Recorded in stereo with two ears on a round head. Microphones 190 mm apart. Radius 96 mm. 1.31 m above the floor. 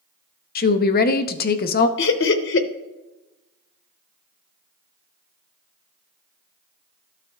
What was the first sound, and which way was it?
A woman speaking, 45° left (ahead or behind).